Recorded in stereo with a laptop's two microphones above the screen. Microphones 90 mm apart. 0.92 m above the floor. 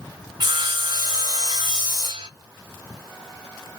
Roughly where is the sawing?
Right.